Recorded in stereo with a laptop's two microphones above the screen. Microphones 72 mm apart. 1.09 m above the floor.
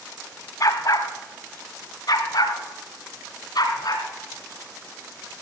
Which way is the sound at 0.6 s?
50° left (ahead or behind).